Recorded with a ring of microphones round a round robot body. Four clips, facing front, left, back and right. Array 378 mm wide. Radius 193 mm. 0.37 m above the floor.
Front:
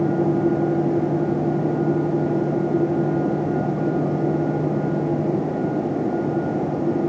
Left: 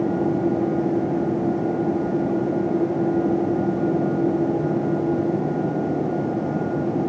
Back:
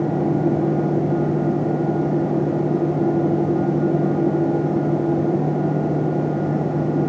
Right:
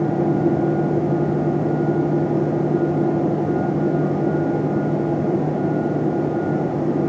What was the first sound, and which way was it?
Only background noise.